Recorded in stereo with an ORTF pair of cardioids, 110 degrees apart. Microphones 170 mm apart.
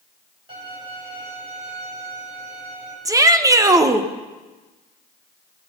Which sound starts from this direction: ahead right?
A violin, at 0.5 s.